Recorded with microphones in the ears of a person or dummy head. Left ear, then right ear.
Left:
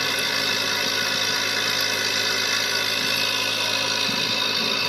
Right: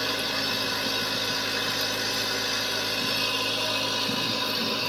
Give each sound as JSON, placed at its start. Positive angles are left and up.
{"t": 0.0, "sound": "a machine running", "side_deg": 70, "distance_m": 1.4}